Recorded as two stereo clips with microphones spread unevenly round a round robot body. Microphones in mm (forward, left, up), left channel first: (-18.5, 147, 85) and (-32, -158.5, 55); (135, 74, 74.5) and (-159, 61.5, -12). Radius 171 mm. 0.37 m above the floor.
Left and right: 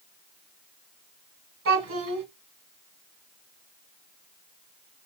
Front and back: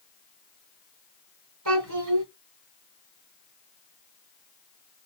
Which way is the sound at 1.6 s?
140° right.